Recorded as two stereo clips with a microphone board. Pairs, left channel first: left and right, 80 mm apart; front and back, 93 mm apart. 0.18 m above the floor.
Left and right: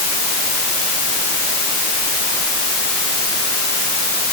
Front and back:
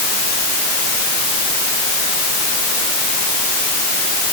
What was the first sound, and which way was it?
Only background noise.